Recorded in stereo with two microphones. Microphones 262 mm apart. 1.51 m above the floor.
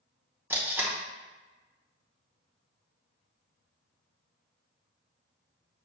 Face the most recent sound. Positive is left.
turn(degrees=-5)  # may be behind; listen again after turning